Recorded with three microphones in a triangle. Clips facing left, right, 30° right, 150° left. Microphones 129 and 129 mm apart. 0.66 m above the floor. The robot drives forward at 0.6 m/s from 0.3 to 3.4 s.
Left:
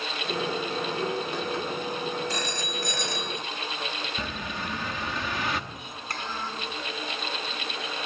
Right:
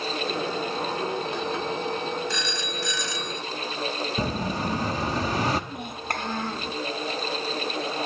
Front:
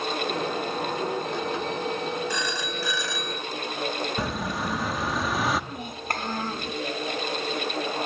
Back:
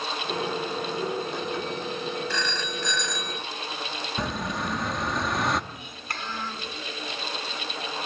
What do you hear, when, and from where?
2.3 s a phone ringing: 45° left, 2.5 m; by 3.4 s 60° left, 2 m
4.2 s an explosion: 115° right, 1.2 m
5.7 s a child speaking: 65° right, 1.7 m